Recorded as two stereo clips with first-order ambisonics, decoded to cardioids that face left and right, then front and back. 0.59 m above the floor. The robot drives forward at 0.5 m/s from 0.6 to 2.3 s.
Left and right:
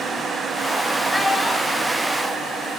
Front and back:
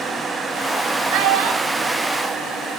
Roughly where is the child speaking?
Behind.